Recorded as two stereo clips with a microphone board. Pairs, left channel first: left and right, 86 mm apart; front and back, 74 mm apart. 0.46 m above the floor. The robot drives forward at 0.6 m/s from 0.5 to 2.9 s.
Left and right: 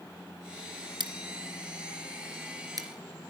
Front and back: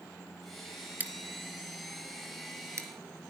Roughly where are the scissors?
Behind right.